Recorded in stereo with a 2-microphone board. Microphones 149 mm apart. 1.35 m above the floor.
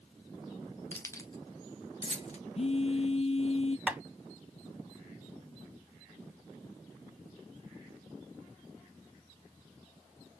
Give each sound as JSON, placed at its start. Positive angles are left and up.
{"t": 0.9, "sound": "keys jangling", "side_deg": 10, "distance_m": 0.8}
{"t": 2.5, "sound": "a phone buzzing", "side_deg": 45, "distance_m": 0.5}
{"t": 3.9, "sound": "tapping", "side_deg": -10, "distance_m": 0.6}